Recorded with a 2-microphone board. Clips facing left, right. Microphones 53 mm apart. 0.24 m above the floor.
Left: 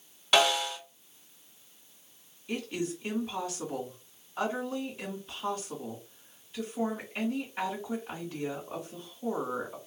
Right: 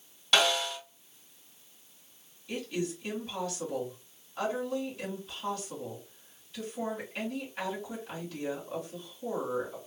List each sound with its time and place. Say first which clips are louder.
0.3 s a snare drum: left 2 dB; 10° left (ahead or behind), 1.9 m
2.5 s a woman speaking: even; 15° left (ahead or behind), 1.7 m